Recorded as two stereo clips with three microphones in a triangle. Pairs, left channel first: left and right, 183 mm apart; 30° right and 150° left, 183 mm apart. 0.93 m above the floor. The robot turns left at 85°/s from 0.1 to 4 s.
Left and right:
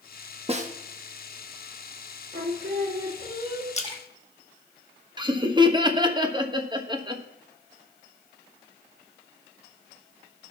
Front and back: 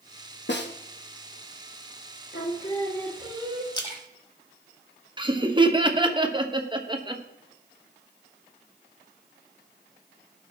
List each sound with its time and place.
0.5 s a snare drum: 35° right, 1.1 m; by 0.7 s 50° right, 1.1 m
2.3 s singing: 50° right, 1.5 m; by 3.6 s 160° right, 1.5 m
3.7 s a splash: 40° left, 1.3 m; by 4.0 s 15° left, 1.3 m
5.2 s laughter: 150° right, 1.2 m